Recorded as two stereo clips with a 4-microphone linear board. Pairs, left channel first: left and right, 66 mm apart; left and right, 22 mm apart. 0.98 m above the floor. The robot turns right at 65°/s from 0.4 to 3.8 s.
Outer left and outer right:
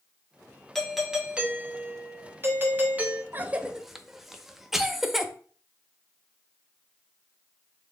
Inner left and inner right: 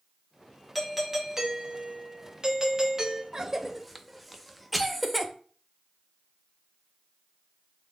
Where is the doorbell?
170° left, 0.7 m; by 3.2 s 30° right, 0.7 m.